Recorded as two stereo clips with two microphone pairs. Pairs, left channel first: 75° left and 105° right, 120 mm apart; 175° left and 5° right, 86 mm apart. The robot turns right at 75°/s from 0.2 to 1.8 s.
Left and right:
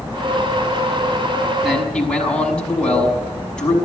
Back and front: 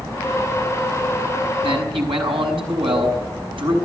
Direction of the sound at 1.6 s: 20° right.